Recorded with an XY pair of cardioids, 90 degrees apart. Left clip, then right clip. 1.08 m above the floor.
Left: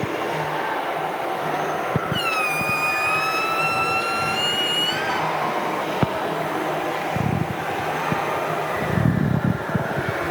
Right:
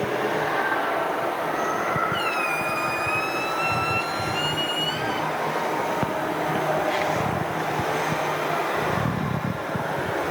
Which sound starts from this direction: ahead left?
A squeak, at 2.1 s.